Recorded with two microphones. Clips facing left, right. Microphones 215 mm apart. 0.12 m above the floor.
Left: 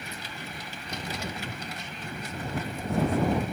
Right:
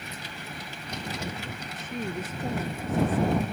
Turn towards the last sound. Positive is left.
turn(degrees=-55)  # may be behind; listen again after turning